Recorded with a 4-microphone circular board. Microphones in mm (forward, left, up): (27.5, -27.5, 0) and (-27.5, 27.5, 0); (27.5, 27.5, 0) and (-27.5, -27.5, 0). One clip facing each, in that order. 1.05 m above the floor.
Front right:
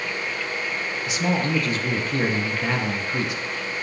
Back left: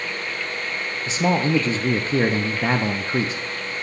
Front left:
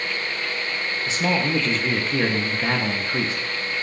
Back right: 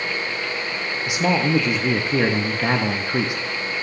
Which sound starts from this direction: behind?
A man speaking, at 1.1 s.